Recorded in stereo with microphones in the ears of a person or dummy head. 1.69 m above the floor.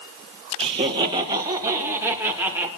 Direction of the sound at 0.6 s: 30° right (ahead or behind).